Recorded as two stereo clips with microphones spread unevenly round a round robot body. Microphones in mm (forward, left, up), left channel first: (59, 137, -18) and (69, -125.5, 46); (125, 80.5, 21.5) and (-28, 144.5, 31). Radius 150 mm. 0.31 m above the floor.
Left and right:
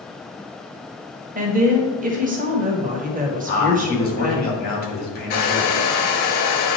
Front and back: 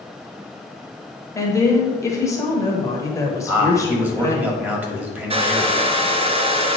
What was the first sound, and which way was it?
A woman speaking, 40° right.